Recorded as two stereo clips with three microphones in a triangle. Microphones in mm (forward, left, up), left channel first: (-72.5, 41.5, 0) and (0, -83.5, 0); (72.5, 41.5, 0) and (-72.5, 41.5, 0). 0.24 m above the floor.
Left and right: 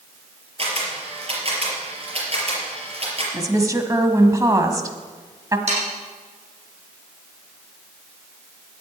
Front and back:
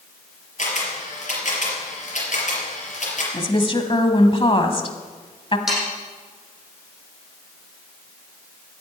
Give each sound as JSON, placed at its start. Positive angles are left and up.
{"t": 0.6, "sound": "a camera shutter", "azimuth_deg": -20, "distance_m": 4.5}
{"t": 3.3, "sound": "a woman speaking", "azimuth_deg": -10, "distance_m": 1.5}
{"t": 5.7, "sound": "sawing", "azimuth_deg": -90, "distance_m": 7.0}